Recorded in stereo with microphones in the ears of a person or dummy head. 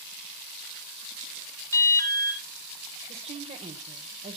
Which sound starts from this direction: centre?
An alarm, at 1.7 s.